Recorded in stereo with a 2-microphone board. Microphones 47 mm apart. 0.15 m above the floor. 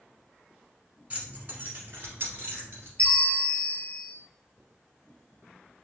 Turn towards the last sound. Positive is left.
turn(degrees=30)  # may be behind; listen again after turning